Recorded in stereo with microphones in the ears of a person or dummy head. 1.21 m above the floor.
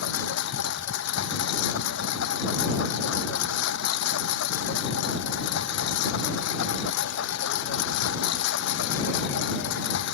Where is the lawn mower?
70° left (ahead or behind).